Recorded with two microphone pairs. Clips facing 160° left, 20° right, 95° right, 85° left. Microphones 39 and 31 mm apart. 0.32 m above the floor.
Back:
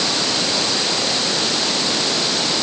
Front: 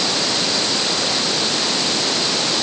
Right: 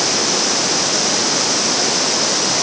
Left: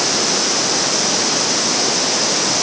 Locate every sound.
Only background noise.